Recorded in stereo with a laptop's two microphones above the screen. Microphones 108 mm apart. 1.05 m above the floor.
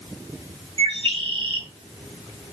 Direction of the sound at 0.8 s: 50° right (ahead or behind).